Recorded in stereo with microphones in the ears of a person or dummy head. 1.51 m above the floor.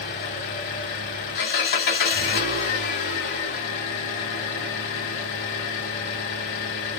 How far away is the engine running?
About 2.5 m.